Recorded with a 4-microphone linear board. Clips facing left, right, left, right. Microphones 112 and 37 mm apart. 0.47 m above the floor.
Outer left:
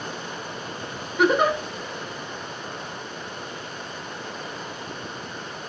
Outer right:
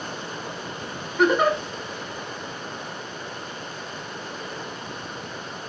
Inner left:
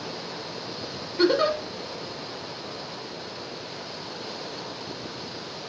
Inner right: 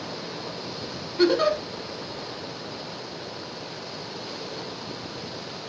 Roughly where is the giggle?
Centre.